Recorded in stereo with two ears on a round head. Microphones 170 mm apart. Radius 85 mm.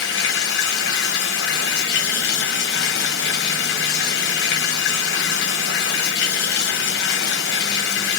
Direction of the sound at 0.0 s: 60° left (ahead or behind).